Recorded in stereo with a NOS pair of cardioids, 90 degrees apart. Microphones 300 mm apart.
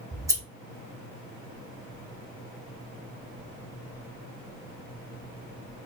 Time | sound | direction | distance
0.1 | scissors | 10° right | 0.8 m